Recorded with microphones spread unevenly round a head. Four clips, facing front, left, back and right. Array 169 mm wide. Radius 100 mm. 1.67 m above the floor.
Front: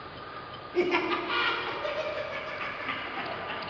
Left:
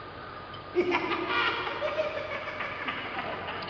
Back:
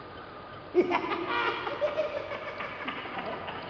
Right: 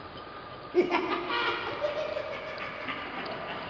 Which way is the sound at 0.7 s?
150° right.